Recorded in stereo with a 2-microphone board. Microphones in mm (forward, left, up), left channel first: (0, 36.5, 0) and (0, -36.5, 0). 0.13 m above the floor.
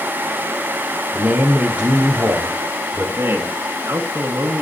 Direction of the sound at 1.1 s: 20° right (ahead or behind).